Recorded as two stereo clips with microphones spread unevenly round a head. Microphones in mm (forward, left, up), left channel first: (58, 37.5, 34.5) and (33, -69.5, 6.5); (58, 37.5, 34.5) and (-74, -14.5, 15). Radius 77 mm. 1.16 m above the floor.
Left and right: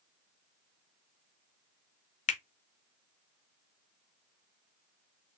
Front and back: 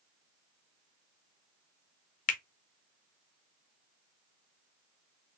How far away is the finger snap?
About 0.6 m.